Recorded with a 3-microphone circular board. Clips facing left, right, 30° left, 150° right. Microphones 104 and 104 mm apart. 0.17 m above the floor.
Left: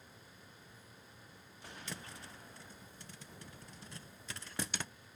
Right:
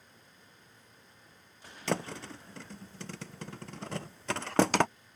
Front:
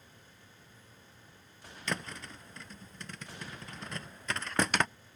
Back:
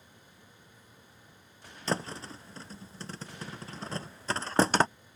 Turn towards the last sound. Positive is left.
turn(degrees=-95)